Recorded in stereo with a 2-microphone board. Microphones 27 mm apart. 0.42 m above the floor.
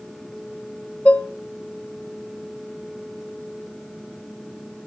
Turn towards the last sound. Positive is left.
turn(degrees=65)  # may be behind; listen again after turning